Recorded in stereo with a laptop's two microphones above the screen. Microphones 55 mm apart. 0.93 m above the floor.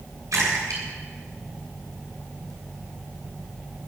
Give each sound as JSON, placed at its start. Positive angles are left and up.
{"t": 0.3, "sound": "a splash", "side_deg": -80, "distance_m": 7.0}